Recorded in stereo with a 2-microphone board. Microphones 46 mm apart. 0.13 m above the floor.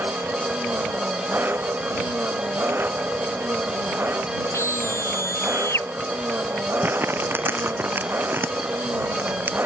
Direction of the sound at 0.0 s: 45° right (ahead or behind).